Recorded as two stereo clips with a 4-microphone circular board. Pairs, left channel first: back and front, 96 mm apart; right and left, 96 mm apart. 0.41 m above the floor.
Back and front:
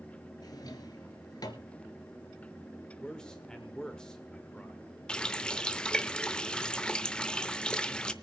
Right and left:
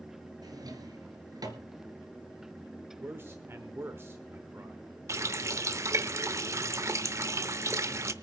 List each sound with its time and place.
0.4 s a drawer: 135° left, 1.6 m
3.0 s a man speaking: 110° left, 1.1 m
5.1 s a running tap: 105° left, 0.6 m